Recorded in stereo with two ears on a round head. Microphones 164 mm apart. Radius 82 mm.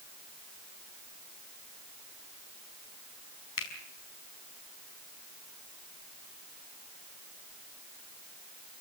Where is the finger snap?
80° left, 5 m.